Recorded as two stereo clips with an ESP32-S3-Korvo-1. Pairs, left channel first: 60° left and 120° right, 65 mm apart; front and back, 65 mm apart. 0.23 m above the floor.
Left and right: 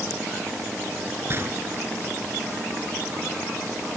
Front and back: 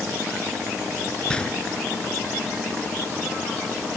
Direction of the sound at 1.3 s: 75° right.